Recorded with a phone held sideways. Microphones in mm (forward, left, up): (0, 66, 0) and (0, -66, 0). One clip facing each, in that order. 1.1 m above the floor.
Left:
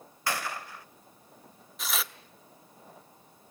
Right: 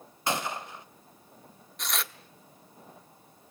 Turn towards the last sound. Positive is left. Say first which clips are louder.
# even
turn(degrees=5)  # may be behind; listen again after turning